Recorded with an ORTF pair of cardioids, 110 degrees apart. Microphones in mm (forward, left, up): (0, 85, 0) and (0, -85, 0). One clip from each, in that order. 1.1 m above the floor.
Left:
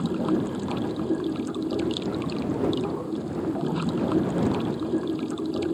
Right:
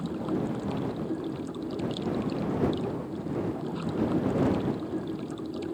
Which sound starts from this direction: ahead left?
Running water, at 0.0 s.